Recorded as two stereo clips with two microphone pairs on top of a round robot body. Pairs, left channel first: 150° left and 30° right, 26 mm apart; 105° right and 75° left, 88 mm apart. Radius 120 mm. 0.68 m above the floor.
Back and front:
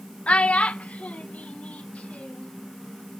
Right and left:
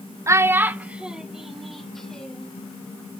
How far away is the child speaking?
About 1.2 m.